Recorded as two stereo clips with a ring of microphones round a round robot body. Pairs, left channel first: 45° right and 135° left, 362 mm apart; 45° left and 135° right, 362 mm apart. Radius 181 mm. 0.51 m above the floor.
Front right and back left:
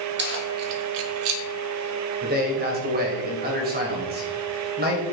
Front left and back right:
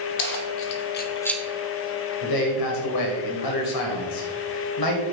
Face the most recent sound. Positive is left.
turn(degrees=70)